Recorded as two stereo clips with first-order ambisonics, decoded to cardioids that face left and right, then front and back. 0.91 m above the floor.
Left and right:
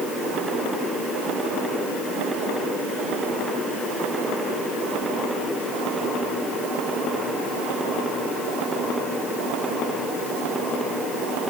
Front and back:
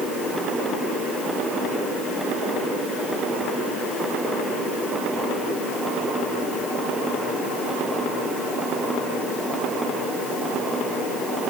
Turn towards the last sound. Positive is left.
No sound to turn to.